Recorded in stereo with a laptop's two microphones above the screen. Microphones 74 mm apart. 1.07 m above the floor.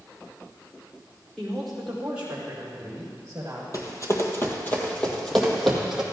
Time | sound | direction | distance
1.4 | a woman speaking | 5° left (ahead or behind) | 3.5 m
3.7 | running footsteps | 45° left (ahead or behind) | 1.7 m